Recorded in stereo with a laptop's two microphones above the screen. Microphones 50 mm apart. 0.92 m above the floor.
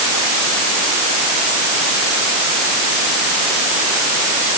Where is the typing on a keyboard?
No typing on a keyboard in this recording.